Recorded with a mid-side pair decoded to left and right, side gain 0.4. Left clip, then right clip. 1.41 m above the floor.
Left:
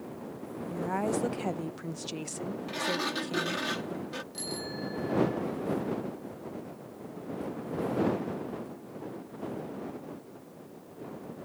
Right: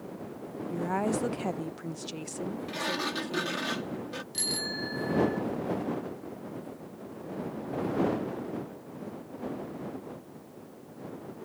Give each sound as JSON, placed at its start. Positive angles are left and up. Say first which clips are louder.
{"t": 0.7, "sound": "a woman speaking", "louder": "right 1 dB", "azimuth_deg": -15}
{"t": 2.7, "sound": "a sliding door", "louder": "left 1 dB", "azimuth_deg": 5}
{"t": 4.3, "sound": "a bicycle bell", "louder": "right 9 dB", "azimuth_deg": -60}